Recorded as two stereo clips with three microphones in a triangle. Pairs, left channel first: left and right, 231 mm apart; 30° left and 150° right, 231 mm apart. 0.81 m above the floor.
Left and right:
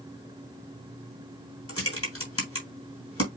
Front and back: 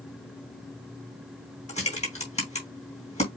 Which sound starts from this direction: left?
Typing on a keyboard, at 1.7 s.